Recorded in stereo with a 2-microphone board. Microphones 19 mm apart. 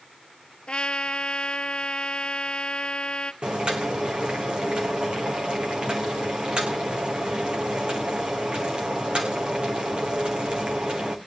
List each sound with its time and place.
0.7 s a trumpet: 60° left (ahead or behind), 0.7 m
3.4 s boiling: 60° right (ahead or behind), 3 m